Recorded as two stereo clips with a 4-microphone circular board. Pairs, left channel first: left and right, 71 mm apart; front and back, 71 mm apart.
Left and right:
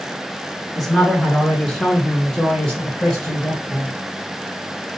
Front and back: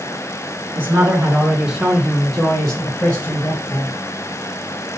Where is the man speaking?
175° left, 1.6 m; by 3.9 s 20° left, 1.7 m.